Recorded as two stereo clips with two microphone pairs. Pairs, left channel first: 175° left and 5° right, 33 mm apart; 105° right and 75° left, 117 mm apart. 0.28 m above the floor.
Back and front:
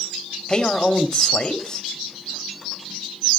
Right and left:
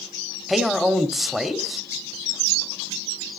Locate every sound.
0.5 s a man speaking: 160° left, 1.0 m